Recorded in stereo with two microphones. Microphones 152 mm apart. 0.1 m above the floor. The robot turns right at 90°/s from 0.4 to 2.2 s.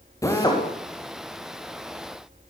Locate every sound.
0.2 s a drill: 20° left (ahead or behind), 8.5 m; by 0.6 s 45° left (ahead or behind), 8.5 m